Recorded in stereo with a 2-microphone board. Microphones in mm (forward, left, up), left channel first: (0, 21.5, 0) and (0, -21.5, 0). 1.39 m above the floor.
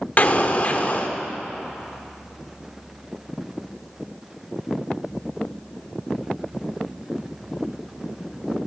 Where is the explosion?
35° left (ahead or behind), 1.2 m.